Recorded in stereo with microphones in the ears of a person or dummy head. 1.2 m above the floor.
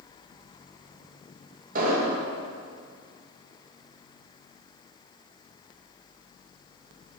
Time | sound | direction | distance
1.8 | an explosion | 50° right (ahead or behind) | 1.5 m